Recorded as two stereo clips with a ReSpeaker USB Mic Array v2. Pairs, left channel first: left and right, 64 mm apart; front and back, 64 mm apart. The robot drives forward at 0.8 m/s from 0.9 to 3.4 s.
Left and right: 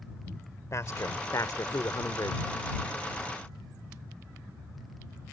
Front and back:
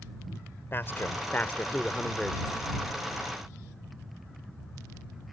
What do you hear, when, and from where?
0.7 s a man speaking: 50° left; by 2.4 s 90° left